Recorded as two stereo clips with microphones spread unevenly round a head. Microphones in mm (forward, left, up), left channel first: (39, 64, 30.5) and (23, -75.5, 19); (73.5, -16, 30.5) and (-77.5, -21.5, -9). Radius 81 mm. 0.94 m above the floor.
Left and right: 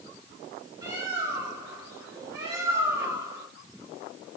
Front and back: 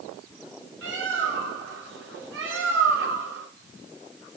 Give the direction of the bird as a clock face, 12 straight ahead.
6 o'clock.